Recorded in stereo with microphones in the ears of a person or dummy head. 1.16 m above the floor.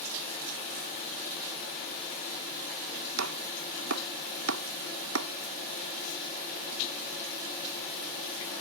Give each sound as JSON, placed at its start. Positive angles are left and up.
{"t": 3.2, "sound": "chopping", "side_deg": -85}